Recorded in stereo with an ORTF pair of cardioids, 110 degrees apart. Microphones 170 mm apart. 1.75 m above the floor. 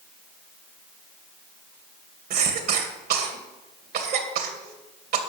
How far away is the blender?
No blender in this recording.